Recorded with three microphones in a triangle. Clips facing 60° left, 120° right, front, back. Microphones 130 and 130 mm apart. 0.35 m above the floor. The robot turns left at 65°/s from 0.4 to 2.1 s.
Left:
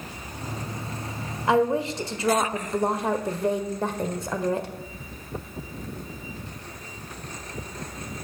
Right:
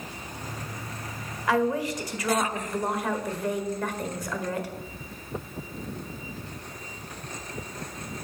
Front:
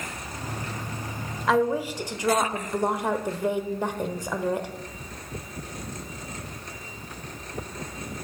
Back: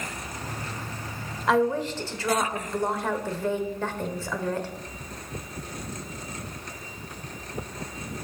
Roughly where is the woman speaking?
Left.